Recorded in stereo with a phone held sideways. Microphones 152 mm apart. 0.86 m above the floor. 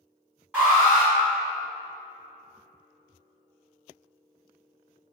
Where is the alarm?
10° right (ahead or behind), 1.9 m.